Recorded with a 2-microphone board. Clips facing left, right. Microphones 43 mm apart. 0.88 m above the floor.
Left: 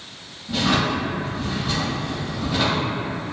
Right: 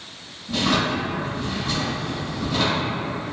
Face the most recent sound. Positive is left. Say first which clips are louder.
# left 1 dB
turn(degrees=5)  # may be behind; listen again after turning